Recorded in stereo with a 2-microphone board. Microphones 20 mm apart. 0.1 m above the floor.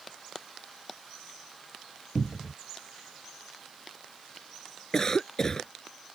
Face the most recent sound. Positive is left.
turn(degrees=30)  # may be behind; listen again after turning